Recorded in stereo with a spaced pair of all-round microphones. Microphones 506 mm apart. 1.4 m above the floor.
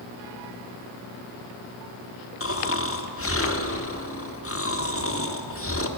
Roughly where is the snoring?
Left.